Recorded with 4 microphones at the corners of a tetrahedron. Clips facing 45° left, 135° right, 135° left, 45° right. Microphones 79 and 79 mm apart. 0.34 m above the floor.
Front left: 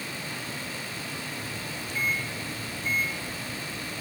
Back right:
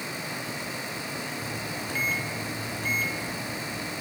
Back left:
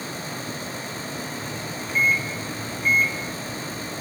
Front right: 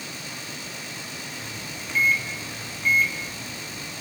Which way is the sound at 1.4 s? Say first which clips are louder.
Back right 3 dB, back left 5 dB; 145° right.